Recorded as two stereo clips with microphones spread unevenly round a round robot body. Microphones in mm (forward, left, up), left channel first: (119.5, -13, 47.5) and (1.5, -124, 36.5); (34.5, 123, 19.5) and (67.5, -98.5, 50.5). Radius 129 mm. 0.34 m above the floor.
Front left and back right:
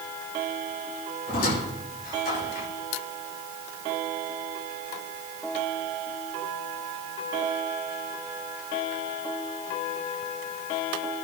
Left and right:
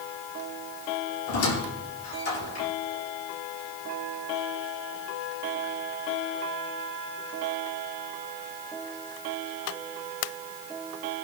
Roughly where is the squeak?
Left.